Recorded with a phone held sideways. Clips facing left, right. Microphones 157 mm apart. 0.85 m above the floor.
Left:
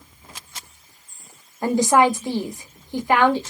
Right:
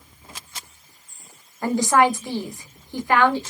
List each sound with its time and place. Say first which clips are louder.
1.6 s a woman speaking: left 2 dB; 20° left (ahead or behind), 0.9 m